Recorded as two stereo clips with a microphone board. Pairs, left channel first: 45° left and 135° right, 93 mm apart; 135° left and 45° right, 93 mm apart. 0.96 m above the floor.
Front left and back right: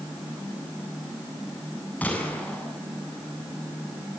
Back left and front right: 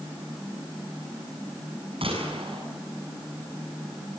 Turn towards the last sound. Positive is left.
turn(degrees=-30)